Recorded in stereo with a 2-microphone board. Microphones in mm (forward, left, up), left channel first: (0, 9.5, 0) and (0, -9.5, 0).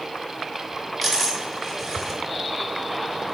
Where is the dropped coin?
Centre (ahead or behind), 1.7 m.